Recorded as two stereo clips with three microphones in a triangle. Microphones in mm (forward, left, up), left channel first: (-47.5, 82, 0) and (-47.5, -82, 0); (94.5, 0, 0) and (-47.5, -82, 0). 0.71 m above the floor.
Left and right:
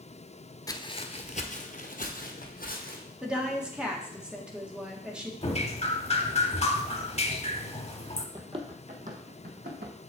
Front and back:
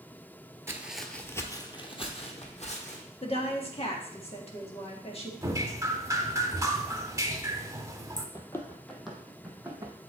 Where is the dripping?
140° left, 0.8 m.